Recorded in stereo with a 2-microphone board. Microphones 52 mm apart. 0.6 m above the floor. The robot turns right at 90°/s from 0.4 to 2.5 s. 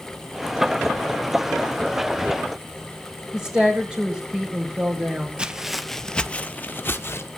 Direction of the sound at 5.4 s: 15° right (ahead or behind).